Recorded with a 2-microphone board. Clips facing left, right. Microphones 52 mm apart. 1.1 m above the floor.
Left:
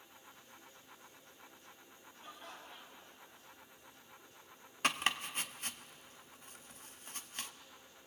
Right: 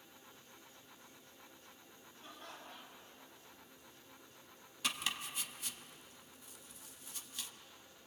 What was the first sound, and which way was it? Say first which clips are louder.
Laughter: left 1 dB; 10° left (ahead or behind).